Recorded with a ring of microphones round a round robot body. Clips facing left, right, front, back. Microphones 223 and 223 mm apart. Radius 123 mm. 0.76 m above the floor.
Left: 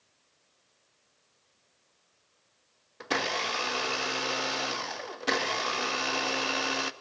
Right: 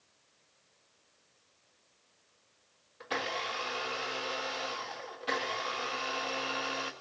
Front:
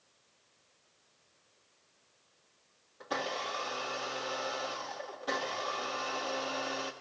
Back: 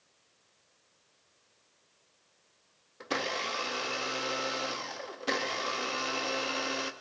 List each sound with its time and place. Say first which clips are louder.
3.0 s a blender: left 5 dB, back 2 dB; 120° left, 0.6 m